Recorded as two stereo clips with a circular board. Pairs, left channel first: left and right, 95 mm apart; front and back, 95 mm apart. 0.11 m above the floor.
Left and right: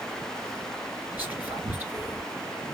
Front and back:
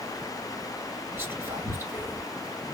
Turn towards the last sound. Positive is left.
turn(degrees=-140)